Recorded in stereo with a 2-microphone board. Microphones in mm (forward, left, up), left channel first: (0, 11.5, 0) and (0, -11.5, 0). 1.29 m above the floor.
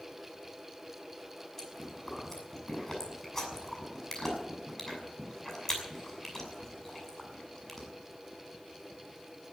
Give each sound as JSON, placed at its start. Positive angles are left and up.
{"t": 1.6, "sound": "chewing", "side_deg": 15, "distance_m": 7.0}